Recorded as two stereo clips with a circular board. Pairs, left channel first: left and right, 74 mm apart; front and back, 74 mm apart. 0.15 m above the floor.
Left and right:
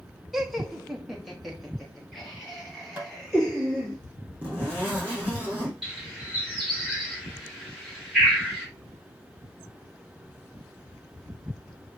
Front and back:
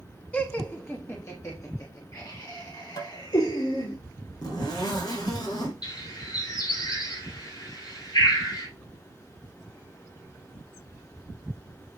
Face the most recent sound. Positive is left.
turn(degrees=-5)